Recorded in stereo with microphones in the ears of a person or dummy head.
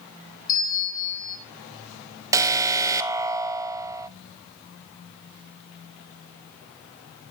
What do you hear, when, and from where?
0.5 s a bell: 25° left (ahead or behind), 3.5 m
2.3 s an alarm: 15° right (ahead or behind), 0.7 m